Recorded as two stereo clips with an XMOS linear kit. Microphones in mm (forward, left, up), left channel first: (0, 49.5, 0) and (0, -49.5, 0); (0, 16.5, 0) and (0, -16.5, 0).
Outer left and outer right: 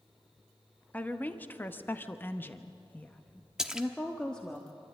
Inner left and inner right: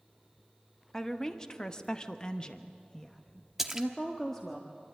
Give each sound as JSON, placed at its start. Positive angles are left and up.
{"t": 0.9, "sound": "a woman speaking", "side_deg": 15, "distance_m": 1.2}
{"t": 3.6, "sound": "a splash", "side_deg": -5, "distance_m": 1.0}